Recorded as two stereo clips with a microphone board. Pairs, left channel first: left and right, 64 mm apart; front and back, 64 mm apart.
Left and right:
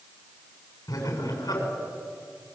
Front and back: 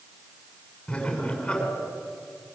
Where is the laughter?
70° left, 7 m.